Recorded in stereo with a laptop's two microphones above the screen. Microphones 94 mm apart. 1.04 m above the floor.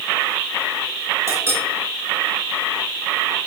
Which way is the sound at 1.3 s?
30° right (ahead or behind).